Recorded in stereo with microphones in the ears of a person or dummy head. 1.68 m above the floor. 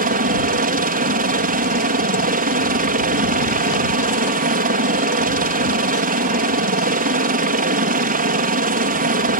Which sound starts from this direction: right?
A helicopter, at 0.0 s.